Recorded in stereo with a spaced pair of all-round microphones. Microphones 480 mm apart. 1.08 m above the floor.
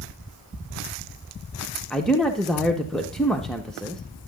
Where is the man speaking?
Centre (ahead or behind), 0.7 m.